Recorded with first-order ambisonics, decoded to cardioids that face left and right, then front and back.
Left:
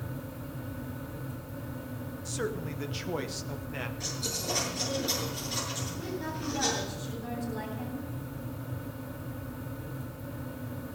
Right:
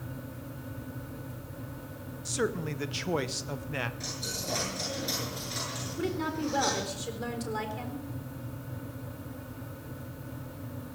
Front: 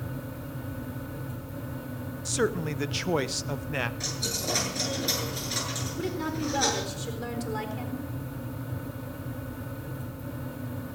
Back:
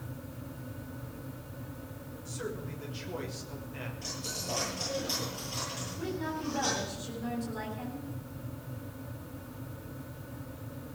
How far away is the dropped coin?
About 8.5 m.